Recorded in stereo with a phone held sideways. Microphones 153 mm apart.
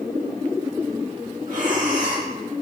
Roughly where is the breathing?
Right.